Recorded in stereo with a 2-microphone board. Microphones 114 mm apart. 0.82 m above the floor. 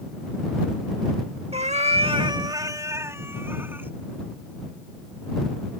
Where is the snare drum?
I don't hear a snare drum.